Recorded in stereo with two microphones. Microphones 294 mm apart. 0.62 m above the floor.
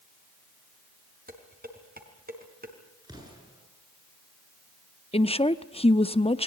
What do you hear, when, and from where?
1.3 s dishes clattering: 30° right (ahead or behind), 3.5 m
3.0 s an explosion: 15° right (ahead or behind), 8.5 m
5.1 s a woman speaking: 20° left (ahead or behind), 0.7 m